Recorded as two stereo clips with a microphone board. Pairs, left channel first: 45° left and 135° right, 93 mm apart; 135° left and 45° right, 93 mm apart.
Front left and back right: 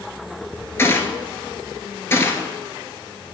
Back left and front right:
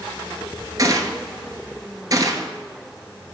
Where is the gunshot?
10° right, 0.8 m.